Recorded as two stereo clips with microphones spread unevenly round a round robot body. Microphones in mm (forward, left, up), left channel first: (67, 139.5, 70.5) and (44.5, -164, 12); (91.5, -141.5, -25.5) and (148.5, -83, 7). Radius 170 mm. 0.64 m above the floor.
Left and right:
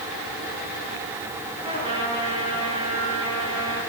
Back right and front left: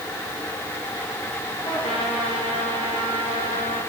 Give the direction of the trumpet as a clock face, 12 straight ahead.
6 o'clock.